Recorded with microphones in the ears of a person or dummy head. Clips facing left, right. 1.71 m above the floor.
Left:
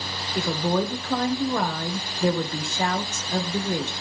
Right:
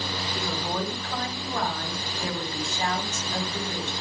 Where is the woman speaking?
50° left (ahead or behind), 1.9 m.